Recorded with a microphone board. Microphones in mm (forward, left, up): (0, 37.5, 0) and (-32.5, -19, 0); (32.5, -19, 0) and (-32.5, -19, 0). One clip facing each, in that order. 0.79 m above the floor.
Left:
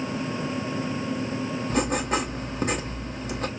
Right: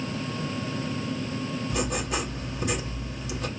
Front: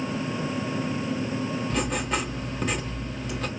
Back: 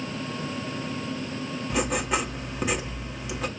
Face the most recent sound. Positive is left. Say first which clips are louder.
# left 6 dB, back 5 dB
turn(degrees=100)